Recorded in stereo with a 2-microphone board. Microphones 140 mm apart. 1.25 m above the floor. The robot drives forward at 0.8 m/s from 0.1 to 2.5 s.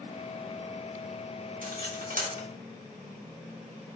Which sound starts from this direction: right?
Cutlery clinking, at 1.6 s.